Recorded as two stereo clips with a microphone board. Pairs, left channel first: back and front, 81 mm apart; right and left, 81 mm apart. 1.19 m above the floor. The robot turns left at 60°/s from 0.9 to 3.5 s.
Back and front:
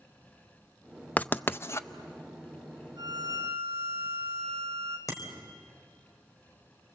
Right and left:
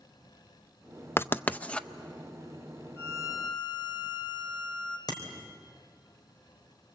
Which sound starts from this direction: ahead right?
A violin, at 3.0 s.